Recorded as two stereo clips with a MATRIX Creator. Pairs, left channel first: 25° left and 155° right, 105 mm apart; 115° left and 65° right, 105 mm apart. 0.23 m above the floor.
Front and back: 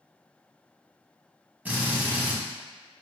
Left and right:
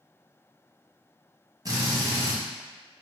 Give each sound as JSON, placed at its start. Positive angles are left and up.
{"t": 1.6, "sound": "a drill", "azimuth_deg": -90, "distance_m": 1.1}